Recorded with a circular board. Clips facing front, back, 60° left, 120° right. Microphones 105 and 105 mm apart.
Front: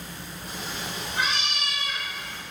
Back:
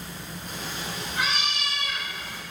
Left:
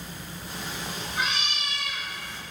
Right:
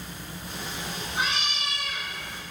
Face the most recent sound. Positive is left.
turn(degrees=-105)